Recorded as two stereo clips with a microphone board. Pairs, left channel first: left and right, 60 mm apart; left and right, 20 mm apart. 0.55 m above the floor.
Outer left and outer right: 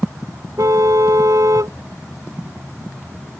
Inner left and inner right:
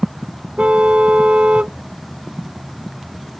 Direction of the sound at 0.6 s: 80° right.